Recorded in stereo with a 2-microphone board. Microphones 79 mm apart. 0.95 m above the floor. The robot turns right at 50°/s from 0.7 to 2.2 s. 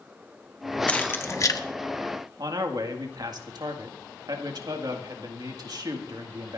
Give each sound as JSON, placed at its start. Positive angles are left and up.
{"t": 0.9, "sound": "keys jangling", "side_deg": 15, "distance_m": 1.1}
{"t": 2.4, "sound": "a man speaking", "side_deg": -60, "distance_m": 1.9}